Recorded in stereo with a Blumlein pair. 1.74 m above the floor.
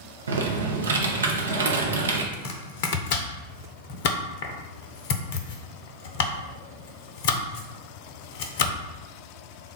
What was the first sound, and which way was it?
Typing on a keyboard, 70° right.